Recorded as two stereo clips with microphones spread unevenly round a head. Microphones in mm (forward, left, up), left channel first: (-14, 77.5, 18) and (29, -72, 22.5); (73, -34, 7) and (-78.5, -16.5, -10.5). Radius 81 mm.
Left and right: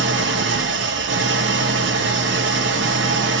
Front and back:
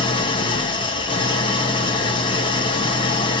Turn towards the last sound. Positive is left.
turn(degrees=-70)